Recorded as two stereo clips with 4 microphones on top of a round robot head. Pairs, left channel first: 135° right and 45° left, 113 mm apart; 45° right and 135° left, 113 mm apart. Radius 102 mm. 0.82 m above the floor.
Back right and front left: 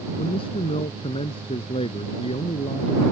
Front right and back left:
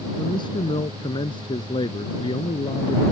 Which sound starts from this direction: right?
A man speaking, at 0.2 s.